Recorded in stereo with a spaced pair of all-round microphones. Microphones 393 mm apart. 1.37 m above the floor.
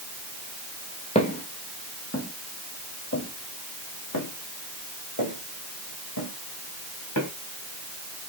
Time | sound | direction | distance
1.1 | footsteps | 15° left (ahead or behind) | 1.9 m